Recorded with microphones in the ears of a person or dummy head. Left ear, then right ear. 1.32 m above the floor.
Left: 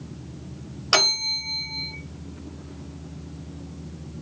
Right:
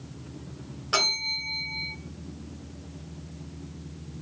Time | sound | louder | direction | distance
0.9 | a bell | left 5 dB | 80° left | 0.8 m